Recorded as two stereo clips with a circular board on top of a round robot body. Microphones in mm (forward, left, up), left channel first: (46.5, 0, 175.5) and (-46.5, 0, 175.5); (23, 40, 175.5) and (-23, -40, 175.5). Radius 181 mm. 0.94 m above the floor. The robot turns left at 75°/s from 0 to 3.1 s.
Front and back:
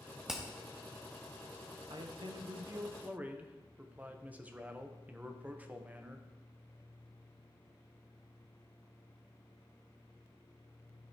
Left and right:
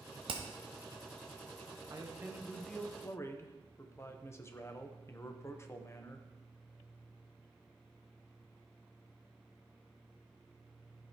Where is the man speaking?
160° right, 1.2 m; by 6.3 s 110° left, 1.2 m.